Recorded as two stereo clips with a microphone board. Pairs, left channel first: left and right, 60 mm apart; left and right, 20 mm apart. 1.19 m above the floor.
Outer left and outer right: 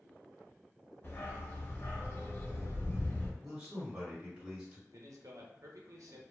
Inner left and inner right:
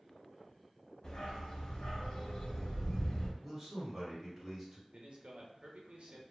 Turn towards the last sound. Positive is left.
turn(degrees=-65)  # may be behind; listen again after turning